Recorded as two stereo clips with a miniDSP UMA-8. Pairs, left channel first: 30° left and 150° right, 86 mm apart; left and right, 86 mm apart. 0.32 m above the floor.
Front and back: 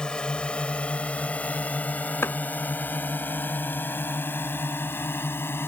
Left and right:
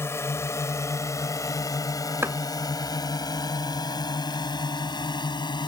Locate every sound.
0.0 s a drone: 100° left; by 5.7 s 90° left
2.2 s chopping: 30° right